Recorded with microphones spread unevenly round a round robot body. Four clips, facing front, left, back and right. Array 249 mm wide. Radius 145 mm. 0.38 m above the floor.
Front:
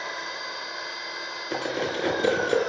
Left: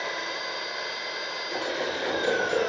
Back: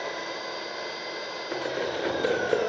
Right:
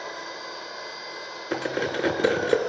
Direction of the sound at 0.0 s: 170° left.